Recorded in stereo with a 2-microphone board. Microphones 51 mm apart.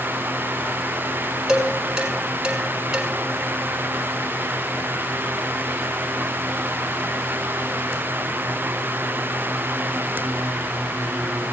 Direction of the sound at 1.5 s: 15° right (ahead or behind).